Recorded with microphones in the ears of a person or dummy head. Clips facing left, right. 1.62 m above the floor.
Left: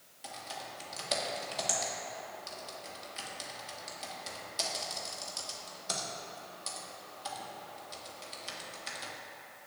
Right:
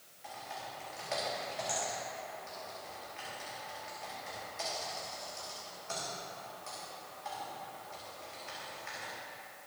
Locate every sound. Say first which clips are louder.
0.2 s typing on a keyboard: even; 50° left (ahead or behind), 1.8 m